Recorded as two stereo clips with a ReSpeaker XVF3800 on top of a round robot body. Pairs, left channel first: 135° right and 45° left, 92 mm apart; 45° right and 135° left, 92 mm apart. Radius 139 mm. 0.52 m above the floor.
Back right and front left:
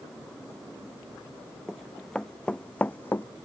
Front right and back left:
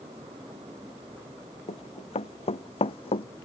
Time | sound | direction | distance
1.7 | running footsteps | 45° right | ?